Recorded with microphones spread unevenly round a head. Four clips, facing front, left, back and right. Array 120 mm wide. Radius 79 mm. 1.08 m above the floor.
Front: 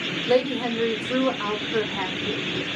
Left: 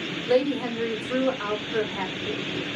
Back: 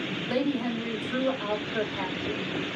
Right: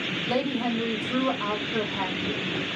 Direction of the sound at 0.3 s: 15° left.